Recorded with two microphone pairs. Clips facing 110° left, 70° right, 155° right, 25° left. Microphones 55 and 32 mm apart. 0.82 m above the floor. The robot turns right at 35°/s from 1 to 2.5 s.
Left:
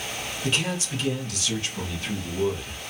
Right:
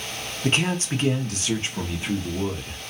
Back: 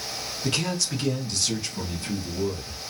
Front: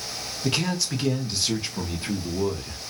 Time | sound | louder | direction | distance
0.4 | a man speaking | right 4 dB, front 1 dB | 50° right | 0.7 m